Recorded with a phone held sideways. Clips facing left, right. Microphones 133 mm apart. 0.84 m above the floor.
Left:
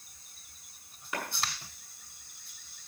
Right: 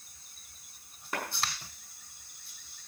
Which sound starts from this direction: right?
A clap, at 1.1 s.